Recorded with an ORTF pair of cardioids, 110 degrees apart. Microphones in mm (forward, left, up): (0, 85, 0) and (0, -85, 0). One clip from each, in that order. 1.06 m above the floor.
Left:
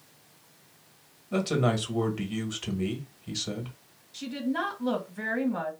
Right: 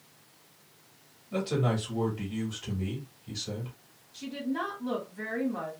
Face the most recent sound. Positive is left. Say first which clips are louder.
# left 3 dB
turn(degrees=40)